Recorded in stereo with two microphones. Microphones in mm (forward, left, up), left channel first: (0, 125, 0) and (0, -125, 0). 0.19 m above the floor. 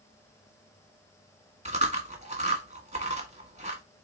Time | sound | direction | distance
1.6 | chewing | 30° right (ahead or behind) | 1.4 m